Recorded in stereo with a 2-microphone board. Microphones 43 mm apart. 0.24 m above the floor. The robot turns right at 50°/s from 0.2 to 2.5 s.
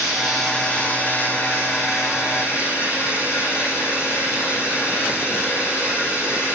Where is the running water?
Straight ahead, 9 m; by 6.6 s 115° left, 9 m.